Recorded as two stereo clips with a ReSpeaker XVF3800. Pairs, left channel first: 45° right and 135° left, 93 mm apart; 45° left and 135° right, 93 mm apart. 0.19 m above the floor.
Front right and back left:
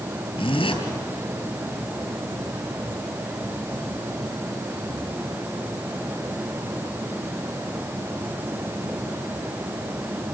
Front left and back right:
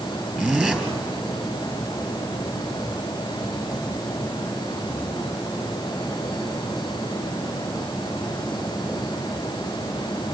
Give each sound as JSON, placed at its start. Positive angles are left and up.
{"t": 0.4, "sound": "a zipper", "azimuth_deg": -55, "distance_m": 3.0}